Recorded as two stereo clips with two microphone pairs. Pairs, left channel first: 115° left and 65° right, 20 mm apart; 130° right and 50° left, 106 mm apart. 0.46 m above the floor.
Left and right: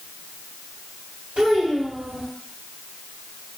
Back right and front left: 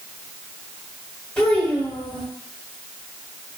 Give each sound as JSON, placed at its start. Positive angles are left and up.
{"t": 1.4, "sound": "a child speaking", "azimuth_deg": -50, "distance_m": 1.6}